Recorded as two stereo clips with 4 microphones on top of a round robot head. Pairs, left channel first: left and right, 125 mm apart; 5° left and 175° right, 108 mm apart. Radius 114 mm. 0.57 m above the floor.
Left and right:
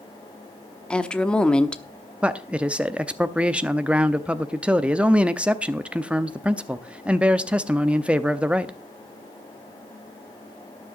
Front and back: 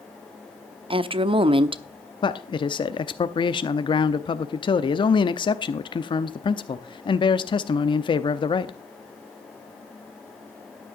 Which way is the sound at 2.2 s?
10° right.